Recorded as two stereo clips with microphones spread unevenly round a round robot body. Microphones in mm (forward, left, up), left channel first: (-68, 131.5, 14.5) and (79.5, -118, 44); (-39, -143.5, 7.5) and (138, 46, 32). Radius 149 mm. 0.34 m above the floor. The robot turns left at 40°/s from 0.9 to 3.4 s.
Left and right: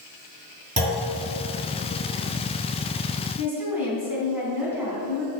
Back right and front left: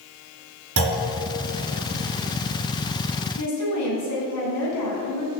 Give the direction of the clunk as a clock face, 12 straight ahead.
12 o'clock.